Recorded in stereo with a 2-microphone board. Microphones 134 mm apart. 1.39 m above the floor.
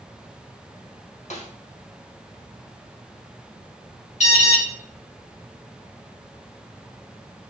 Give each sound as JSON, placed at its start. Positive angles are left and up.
{"t": 1.3, "sound": "a snare drum", "side_deg": 60, "distance_m": 1.8}
{"t": 4.2, "sound": "an alarm", "side_deg": 60, "distance_m": 4.0}